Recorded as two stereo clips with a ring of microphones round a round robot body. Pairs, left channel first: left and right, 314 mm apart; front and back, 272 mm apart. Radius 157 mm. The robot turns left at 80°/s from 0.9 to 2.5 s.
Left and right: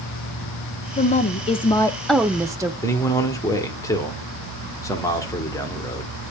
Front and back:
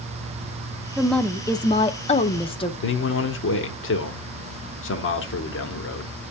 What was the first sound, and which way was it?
A woman speaking, 95° left.